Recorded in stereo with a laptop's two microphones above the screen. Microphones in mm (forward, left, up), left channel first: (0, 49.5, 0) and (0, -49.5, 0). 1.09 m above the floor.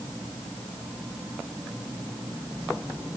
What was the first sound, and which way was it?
Only background noise.